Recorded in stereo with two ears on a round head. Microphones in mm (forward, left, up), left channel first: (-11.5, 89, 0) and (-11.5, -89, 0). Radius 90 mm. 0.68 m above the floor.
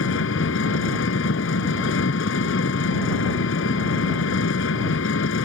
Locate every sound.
0.0 s an engine running: 75° left (ahead or behind)